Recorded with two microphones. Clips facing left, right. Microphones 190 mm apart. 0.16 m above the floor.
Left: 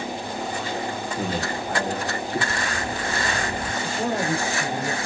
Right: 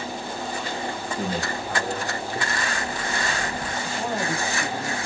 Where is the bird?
35° left (ahead or behind), 1.4 m.